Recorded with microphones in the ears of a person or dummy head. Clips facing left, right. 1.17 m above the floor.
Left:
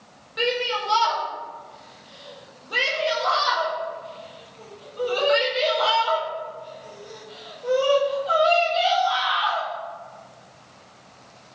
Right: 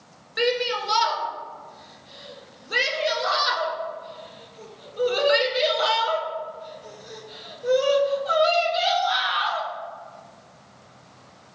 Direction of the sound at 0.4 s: 25° right (ahead or behind).